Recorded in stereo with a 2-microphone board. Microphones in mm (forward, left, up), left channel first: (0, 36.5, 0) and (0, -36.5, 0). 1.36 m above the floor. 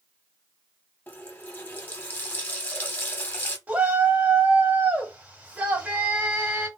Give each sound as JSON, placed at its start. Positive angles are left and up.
{"t": 1.1, "sound": "a running tap", "side_deg": 25, "distance_m": 0.9}
{"t": 3.7, "sound": "a shout", "side_deg": -20, "distance_m": 1.5}